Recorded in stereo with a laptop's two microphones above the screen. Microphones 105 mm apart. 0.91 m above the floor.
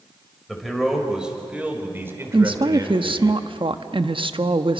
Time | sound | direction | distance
0.5 | a man speaking | centre (ahead or behind) | 5 m
2.3 | a woman speaking | 55° right (ahead or behind) | 1.0 m